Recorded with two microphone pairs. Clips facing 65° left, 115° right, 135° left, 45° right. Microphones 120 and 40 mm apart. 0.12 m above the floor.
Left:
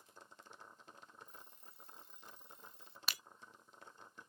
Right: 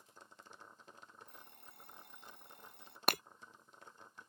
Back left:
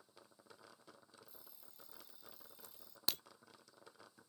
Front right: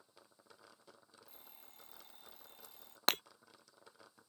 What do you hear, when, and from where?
1.2 s an alarm clock: 85° right
3.1 s breaking glass: 80° right